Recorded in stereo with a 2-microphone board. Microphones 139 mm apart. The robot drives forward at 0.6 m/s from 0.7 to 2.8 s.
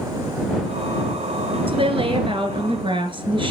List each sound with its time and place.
1.7 s a woman speaking: 40° right (ahead or behind), 1.9 m